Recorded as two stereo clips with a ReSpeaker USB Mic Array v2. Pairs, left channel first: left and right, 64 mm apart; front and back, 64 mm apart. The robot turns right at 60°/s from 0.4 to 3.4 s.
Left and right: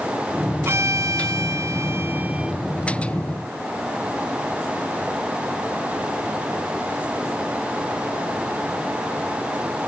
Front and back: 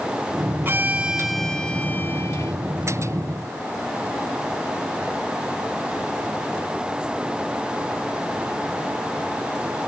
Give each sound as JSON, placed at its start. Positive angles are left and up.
{"t": 0.7, "sound": "a violin", "azimuth_deg": -130, "distance_m": 1.3}